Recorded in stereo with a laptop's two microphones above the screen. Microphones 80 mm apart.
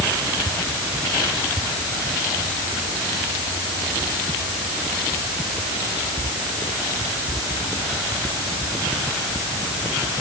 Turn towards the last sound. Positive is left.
No sound to turn to.